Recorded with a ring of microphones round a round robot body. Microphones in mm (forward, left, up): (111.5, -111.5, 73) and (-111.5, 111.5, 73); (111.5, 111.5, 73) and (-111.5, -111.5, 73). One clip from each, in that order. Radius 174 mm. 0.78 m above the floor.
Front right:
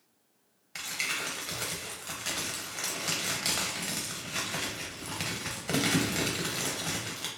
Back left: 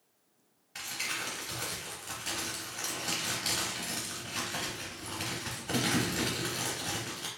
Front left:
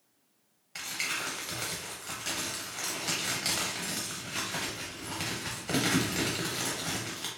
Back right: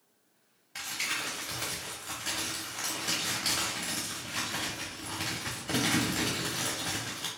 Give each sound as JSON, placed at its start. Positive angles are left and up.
{"t": 0.8, "sound": "crumpling", "azimuth_deg": -25, "distance_m": 0.6}